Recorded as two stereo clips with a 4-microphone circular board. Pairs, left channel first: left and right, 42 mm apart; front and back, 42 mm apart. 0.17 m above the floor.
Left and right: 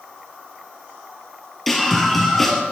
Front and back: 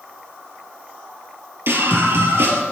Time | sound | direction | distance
1.7 | a scream | 175° left | 3 m